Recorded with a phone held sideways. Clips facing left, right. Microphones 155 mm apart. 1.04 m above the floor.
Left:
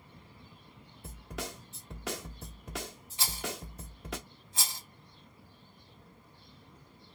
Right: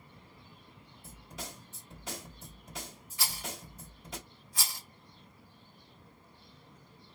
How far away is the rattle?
About 1.1 m.